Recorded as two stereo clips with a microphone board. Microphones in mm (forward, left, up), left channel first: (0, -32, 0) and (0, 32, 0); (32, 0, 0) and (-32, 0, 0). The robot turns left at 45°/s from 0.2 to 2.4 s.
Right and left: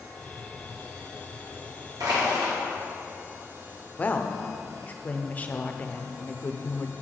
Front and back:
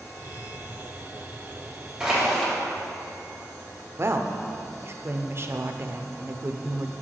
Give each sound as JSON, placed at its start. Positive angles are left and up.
{"t": 2.0, "sound": "crushing", "azimuth_deg": 105, "distance_m": 2.0}
{"t": 4.0, "sound": "a woman speaking", "azimuth_deg": -150, "distance_m": 0.5}